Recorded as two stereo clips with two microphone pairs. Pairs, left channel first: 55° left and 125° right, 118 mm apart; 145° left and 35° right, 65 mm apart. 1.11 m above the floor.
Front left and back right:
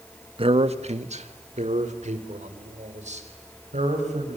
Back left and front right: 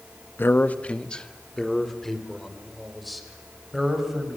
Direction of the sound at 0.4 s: 160° right.